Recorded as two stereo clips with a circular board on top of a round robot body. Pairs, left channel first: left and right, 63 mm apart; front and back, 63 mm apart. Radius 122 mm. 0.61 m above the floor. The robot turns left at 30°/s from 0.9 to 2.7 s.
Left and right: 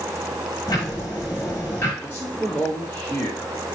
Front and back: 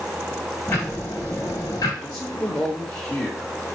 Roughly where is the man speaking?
Left.